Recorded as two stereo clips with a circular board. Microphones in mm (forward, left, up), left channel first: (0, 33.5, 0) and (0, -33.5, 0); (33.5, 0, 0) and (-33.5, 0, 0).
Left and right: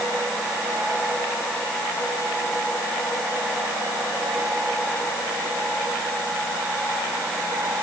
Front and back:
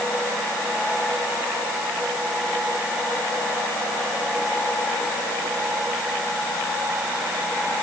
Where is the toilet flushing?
No toilet flushing in this recording.